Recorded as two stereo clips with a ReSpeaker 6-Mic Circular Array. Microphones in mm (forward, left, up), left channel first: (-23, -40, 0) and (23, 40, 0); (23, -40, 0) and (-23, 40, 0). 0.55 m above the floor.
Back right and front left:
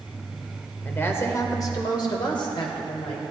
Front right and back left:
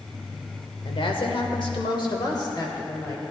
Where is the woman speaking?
55° right, 1.5 m; by 3.2 s 115° right, 2.0 m.